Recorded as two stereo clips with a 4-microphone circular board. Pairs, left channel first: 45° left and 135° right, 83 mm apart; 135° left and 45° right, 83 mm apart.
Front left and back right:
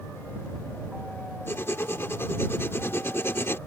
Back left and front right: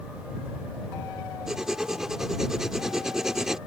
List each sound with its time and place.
1.5 s writing: 35° left